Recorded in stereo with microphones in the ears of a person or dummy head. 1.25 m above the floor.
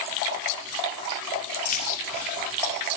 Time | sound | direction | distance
1.6 | keys jangling | 40° left (ahead or behind) | 2 m